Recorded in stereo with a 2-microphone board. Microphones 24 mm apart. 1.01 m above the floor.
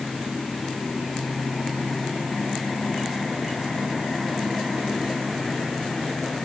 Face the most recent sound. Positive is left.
No sound to turn to.